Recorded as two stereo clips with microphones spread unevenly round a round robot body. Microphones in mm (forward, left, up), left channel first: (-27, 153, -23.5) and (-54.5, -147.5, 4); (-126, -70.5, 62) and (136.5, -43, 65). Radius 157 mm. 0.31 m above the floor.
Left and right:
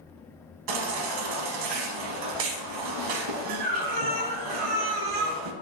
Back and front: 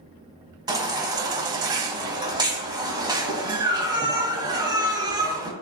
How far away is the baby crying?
About 0.9 m.